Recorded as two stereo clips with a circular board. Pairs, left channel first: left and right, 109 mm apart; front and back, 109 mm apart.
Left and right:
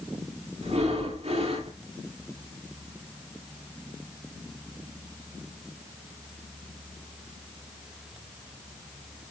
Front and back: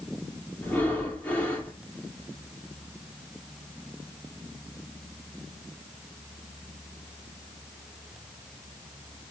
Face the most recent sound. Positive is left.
turn(degrees=-75)